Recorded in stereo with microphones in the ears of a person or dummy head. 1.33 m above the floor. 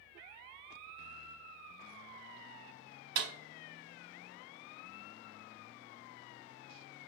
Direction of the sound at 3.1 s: 60° right (ahead or behind).